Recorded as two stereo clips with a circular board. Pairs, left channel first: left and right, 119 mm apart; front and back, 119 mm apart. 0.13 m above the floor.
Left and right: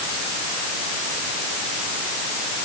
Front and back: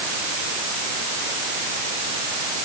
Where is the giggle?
No giggle in this recording.